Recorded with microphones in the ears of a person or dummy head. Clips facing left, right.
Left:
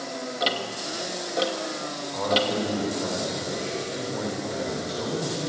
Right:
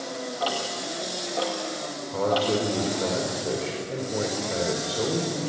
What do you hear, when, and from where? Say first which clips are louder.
0.4 s ticking: even; 30° left (ahead or behind), 2.5 m
2.1 s a man speaking: right 2 dB; 50° right (ahead or behind), 6.5 m